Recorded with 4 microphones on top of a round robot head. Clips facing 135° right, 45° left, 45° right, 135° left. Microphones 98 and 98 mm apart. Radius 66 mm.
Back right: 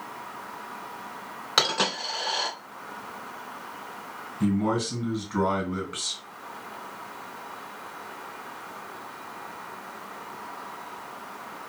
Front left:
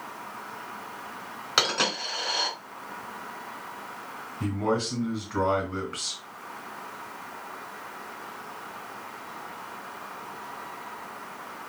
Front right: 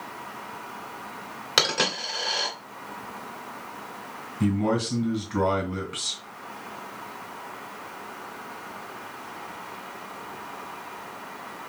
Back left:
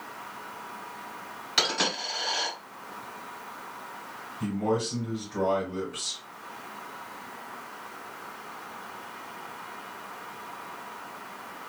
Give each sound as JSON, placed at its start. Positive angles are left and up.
{"t": 1.6, "sound": "a dropped coin", "azimuth_deg": -50, "distance_m": 2.5}
{"t": 4.4, "sound": "a man speaking", "azimuth_deg": -55, "distance_m": 2.5}